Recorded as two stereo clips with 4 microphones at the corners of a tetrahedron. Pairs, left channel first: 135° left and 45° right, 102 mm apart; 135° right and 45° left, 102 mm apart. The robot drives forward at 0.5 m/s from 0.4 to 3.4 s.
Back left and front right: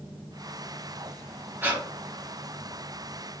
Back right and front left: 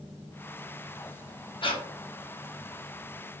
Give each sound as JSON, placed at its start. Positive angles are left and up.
{"t": 1.6, "sound": "breathing", "azimuth_deg": -110, "distance_m": 0.6}